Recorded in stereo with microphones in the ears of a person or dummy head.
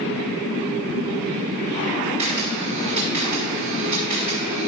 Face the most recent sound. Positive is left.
turn(degrees=-40)  # may be behind; listen again after turning